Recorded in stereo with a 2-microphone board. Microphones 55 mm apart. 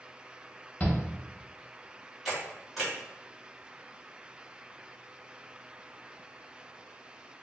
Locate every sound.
0.8 s a shout: 25° left (ahead or behind), 0.8 m
2.2 s a camera shutter: centre (ahead or behind), 1.4 m